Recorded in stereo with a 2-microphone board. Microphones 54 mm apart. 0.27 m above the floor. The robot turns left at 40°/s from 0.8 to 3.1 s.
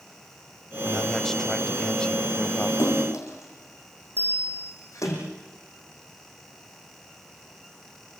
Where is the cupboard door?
I don't hear a cupboard door.